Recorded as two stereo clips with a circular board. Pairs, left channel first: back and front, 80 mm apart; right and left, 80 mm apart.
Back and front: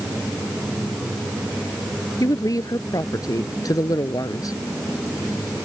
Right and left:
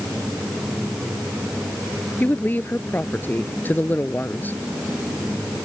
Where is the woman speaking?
150° right.